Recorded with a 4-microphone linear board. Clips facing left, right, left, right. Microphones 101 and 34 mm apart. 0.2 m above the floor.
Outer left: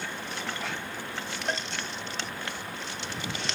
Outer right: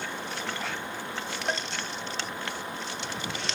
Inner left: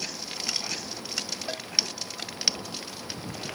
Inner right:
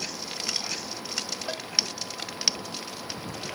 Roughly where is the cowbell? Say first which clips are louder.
Outer right 1 dB, inner right 1 dB; centre.